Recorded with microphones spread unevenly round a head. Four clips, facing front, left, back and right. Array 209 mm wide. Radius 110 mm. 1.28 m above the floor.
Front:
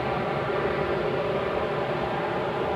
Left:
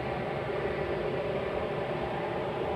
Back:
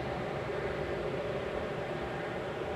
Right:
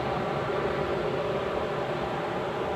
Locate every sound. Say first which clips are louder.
0.0 s an aircraft: right 4 dB, front 9 dB; 20° right; by 2.8 s 10° right